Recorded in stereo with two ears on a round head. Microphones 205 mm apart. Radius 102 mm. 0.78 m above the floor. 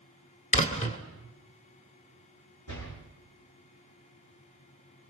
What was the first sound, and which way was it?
A door slam, 30° left (ahead or behind).